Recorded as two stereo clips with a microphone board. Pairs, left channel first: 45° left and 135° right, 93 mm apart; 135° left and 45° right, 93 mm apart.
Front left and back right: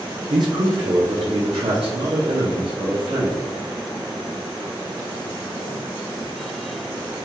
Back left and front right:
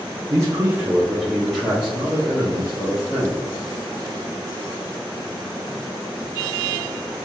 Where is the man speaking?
90° right, 0.6 m; by 3.4 s 165° right, 1.7 m.